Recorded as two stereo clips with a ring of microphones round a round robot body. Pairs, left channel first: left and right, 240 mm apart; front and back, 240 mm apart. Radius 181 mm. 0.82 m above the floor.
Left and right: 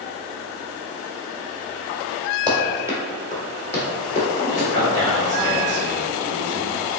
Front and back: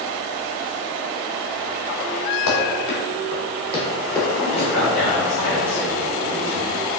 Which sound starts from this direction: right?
A man speaking, at 4.3 s.